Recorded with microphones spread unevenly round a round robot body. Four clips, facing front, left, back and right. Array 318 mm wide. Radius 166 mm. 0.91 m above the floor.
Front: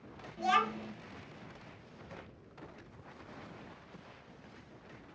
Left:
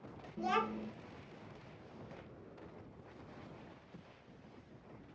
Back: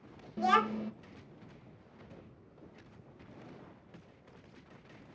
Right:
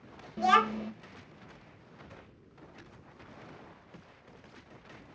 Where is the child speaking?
100° right, 0.5 m.